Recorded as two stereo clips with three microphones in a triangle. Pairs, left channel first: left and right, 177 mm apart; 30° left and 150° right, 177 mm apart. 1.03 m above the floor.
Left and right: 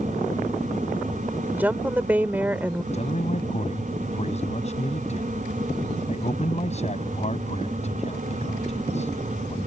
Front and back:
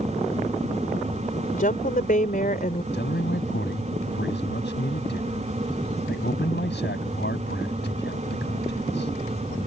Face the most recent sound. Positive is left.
turn(degrees=40)